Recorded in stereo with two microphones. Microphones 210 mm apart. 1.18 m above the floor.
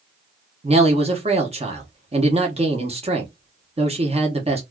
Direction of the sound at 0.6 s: 30° right (ahead or behind).